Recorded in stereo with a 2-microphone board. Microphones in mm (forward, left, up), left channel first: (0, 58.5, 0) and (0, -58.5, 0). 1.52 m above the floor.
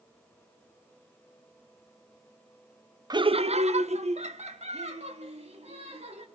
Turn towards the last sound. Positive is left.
turn(degrees=-75)  # may be behind; listen again after turning